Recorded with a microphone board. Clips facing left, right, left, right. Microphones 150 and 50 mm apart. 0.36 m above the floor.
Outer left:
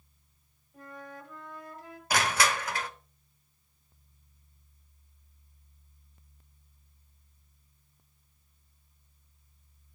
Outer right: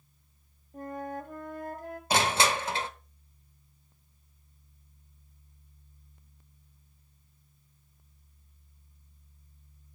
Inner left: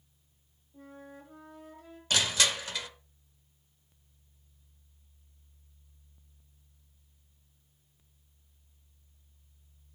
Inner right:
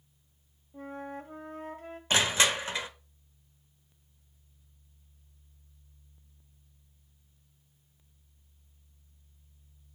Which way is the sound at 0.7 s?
50° right (ahead or behind).